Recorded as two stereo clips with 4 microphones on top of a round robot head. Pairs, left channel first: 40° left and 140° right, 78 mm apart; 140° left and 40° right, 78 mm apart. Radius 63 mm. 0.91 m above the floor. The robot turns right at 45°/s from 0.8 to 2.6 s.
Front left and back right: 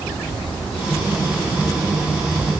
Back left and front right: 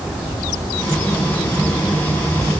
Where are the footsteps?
No footsteps in this recording.